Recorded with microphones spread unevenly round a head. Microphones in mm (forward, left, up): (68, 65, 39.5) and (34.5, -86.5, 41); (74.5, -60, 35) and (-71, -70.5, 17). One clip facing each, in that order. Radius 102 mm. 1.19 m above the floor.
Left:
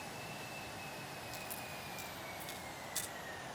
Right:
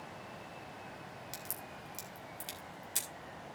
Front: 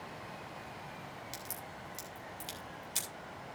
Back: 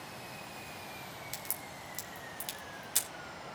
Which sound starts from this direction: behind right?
A crack, at 1.3 s.